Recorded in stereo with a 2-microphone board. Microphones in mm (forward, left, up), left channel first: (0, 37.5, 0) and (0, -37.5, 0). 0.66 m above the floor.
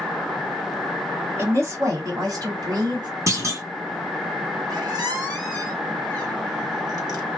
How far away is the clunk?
About 1.4 m.